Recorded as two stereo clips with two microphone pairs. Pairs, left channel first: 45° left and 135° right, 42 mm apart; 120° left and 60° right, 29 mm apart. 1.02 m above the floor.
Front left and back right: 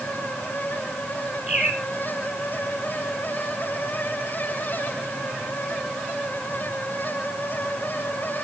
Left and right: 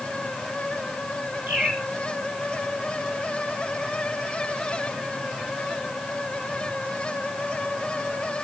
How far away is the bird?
About 8.5 m.